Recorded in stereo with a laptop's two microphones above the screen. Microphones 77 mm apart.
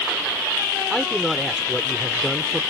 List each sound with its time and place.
0.9 s a man speaking: centre (ahead or behind)